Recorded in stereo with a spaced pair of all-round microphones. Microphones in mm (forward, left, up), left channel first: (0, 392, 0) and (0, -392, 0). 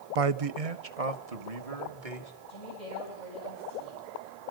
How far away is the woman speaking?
About 7 m.